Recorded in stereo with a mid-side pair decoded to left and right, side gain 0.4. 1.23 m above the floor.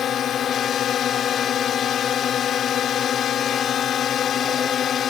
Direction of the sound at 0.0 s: 65° left.